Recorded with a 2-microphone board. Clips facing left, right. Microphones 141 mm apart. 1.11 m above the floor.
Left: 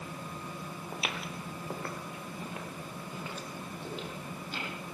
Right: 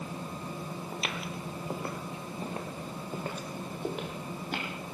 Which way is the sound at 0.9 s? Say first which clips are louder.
Left 1 dB; 5° left (ahead or behind).